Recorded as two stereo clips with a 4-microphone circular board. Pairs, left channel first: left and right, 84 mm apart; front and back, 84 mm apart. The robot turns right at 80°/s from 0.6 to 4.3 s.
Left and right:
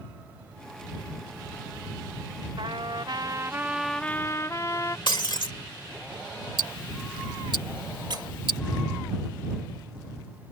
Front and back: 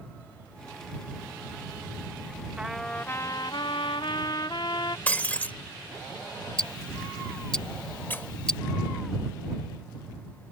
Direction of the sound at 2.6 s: 105° right.